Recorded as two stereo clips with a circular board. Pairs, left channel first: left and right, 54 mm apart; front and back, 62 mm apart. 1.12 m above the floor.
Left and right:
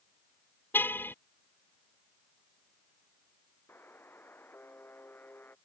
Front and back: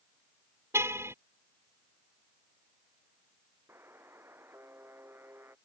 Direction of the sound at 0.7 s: 140° left.